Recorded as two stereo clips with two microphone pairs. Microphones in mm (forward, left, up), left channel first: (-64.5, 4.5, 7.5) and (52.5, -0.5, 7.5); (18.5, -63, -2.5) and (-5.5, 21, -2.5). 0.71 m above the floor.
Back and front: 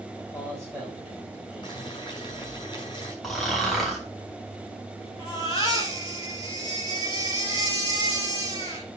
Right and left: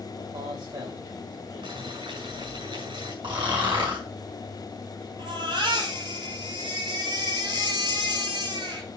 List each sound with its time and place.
0.2 s a man speaking: 95° left, 5 m; by 2.0 s 85° left, 3.5 m
1.6 s boiling: 125° left, 5.5 m
3.2 s snoring: 90° left, 3.5 m
5.2 s a baby crying: 120° left, 5 m